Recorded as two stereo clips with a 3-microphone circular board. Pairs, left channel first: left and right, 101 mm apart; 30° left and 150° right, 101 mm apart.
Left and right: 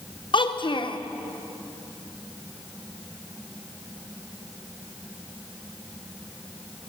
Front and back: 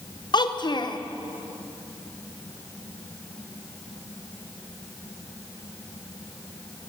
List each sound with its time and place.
0.3 s a child speaking: 65° left, 0.6 m